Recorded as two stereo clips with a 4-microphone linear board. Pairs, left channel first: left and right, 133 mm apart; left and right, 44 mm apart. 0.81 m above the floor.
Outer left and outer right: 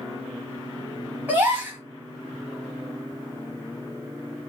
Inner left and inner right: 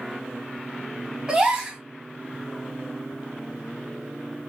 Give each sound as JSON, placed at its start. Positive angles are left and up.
{"t": 1.3, "sound": "a gasp", "side_deg": -15, "distance_m": 1.0}